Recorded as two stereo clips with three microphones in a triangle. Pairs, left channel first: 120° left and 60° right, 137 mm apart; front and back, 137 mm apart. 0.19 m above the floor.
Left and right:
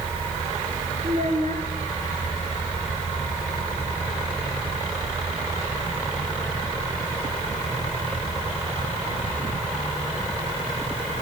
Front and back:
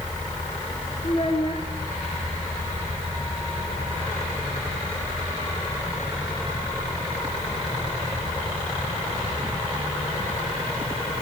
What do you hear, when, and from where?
1.0 s a child speaking: 40° right, 2.5 m